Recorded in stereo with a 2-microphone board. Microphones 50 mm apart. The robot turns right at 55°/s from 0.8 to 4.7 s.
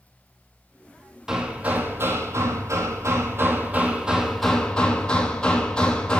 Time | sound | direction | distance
1.3 | hammering | 170° right | 1.0 m